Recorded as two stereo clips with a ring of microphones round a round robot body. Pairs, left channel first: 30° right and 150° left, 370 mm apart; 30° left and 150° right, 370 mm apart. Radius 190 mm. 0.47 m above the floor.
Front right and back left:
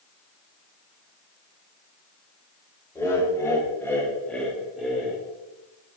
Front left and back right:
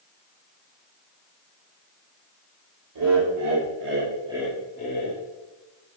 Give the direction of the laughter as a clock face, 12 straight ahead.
4 o'clock.